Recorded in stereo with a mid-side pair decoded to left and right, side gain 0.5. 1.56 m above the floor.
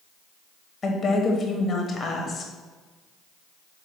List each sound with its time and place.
0.8 s a woman speaking: 35° left, 1.1 m